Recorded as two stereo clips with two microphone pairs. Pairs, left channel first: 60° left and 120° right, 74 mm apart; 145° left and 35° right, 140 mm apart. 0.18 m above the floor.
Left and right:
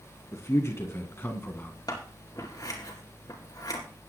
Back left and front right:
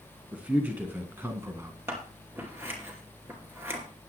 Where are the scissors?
35° left, 4 m.